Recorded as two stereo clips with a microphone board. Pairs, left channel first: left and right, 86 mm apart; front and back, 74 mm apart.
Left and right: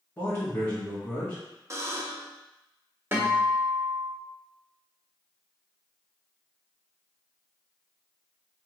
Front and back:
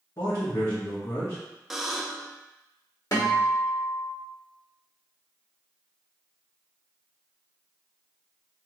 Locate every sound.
0.2 s a man speaking: 20° left, 1.3 m
1.7 s a buzzer: 95° right, 0.5 m
3.1 s a guitar: 30° right, 1.3 m